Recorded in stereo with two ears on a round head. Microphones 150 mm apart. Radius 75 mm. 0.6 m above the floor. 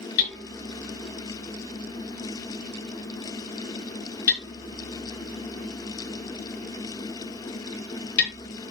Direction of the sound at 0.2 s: 70° left (ahead or behind).